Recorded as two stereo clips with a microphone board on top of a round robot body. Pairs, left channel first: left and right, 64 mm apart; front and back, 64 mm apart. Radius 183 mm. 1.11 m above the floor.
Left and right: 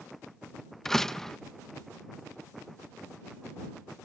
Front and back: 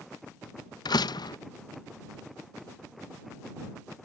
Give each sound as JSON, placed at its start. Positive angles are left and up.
{"t": 0.8, "sound": "a door slam", "azimuth_deg": 5}